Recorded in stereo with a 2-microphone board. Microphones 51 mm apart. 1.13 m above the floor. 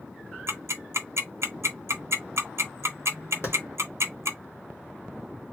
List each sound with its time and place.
0.5 s ticking: 60° right (ahead or behind), 0.8 m
3.4 s a clap: 55° left (ahead or behind), 1.4 m